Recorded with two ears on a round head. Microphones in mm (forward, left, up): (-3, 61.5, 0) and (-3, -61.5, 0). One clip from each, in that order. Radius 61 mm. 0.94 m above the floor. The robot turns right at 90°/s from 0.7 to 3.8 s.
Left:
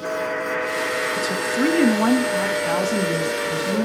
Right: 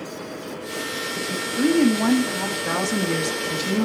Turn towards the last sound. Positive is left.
turn(degrees=-80)